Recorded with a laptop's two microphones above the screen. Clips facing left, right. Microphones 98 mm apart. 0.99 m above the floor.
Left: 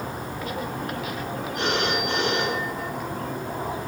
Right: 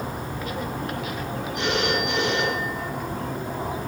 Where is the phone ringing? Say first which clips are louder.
Right 1 dB; 45° left (ahead or behind), 7 m.